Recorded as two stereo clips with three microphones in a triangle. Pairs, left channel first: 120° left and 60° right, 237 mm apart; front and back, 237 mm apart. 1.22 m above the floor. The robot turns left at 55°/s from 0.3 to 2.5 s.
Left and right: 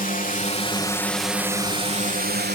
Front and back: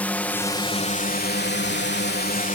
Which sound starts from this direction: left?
A drone, at 0.0 s.